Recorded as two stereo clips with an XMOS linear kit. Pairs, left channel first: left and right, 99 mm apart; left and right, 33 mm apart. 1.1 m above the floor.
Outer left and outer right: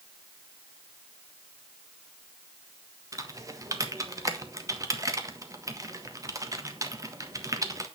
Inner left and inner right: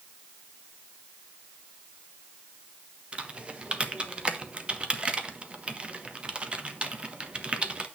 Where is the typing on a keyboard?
35° right (ahead or behind), 1.4 m.